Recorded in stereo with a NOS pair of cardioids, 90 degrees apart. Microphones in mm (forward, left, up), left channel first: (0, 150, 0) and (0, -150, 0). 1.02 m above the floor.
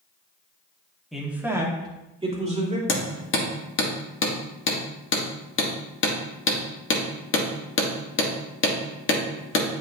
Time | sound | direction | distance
1.1 | a man speaking | straight ahead | 1.7 m
2.9 | hammering | 40° left | 1.6 m